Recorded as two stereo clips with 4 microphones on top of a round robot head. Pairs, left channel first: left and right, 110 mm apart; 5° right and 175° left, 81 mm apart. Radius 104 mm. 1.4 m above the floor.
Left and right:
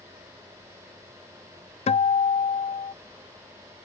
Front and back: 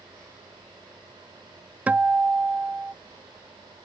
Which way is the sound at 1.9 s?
100° left.